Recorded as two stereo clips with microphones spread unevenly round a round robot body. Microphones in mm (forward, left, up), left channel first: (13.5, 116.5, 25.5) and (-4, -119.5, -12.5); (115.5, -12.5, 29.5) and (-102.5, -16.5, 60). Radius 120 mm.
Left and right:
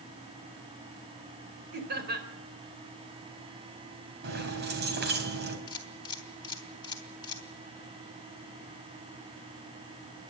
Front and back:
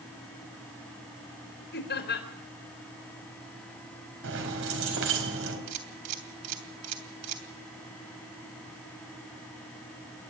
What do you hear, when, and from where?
1.7 s laughter: 45° right, 4 m
4.2 s keys jangling: 145° right, 4 m
5.7 s a camera shutter: 160° left, 3 m